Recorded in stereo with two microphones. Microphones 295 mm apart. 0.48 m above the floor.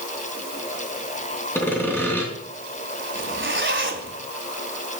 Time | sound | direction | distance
1.6 | sawing | 5° left (ahead or behind) | 3.5 m
3.1 | a zipper | 40° right (ahead or behind) | 2 m